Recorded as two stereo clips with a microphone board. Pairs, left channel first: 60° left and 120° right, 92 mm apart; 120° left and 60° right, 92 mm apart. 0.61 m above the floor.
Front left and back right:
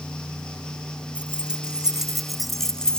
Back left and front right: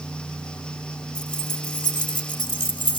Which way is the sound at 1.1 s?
160° left.